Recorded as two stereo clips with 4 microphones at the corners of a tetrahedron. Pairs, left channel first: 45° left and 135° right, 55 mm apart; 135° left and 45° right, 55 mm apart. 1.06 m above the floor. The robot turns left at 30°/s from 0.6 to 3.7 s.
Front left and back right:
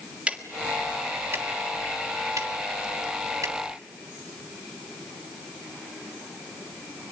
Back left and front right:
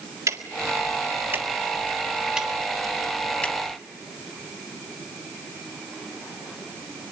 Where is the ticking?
65° right, 1.6 m; by 3.5 s 155° right, 1.6 m.